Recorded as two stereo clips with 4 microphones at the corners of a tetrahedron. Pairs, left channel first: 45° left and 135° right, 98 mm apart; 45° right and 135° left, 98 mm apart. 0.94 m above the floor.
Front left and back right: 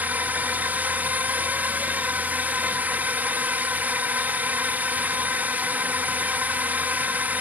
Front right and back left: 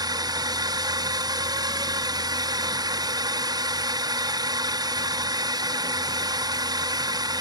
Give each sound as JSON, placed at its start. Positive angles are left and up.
{"t": 0.0, "sound": "a drone", "azimuth_deg": 155}